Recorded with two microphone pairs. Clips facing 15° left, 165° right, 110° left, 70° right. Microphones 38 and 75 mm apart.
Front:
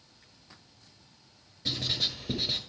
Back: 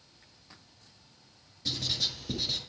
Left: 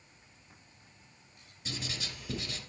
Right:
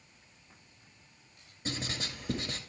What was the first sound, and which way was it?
Writing, 45° right.